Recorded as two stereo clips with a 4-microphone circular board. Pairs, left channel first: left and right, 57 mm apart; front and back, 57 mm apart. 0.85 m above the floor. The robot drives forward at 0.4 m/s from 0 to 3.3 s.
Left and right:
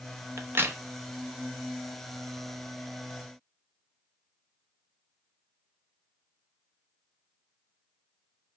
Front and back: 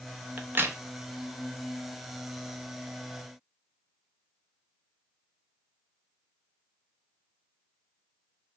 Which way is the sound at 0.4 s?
125° right.